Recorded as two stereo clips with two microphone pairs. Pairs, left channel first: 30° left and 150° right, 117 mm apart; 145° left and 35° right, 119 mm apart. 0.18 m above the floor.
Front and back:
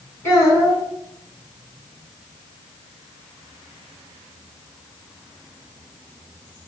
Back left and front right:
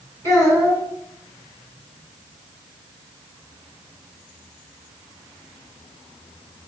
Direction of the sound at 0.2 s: 90° left.